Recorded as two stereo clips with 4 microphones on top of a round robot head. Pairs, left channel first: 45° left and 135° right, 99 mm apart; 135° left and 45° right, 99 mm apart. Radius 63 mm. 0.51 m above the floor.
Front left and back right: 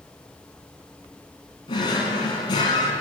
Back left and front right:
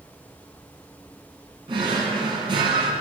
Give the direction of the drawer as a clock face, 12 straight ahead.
12 o'clock.